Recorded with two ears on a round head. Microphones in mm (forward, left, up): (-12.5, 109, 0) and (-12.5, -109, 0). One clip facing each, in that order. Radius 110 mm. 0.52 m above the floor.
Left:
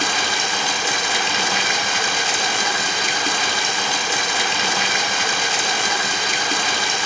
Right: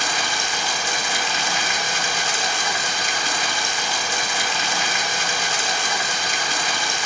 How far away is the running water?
About 0.7 m.